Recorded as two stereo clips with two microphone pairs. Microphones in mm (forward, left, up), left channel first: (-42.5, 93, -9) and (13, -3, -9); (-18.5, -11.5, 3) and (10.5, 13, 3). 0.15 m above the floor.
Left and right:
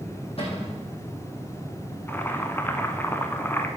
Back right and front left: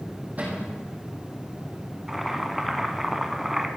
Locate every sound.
0.4 s a cupboard door: 90° left, 4 m
2.1 s boiling: 125° left, 1.0 m